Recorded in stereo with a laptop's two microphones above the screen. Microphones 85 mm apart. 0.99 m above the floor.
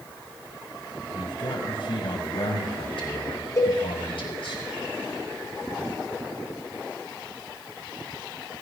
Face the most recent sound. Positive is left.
turn(degrees=40)  # may be behind; listen again after turning